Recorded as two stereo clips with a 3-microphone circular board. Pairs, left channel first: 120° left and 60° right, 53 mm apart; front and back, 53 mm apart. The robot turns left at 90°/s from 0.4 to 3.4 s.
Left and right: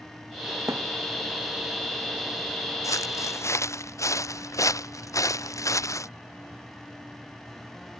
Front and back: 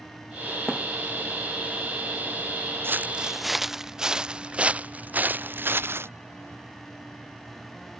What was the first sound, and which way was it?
A thud, 90° right.